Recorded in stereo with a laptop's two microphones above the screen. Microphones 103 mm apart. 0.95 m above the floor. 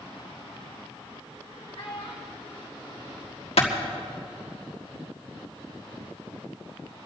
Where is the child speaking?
55° left (ahead or behind), 2 m; by 3.8 s 45° left (ahead or behind), 3.5 m.